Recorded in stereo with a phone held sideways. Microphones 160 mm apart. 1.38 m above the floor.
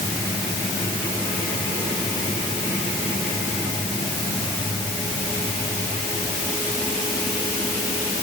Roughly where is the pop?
I don't hear a pop.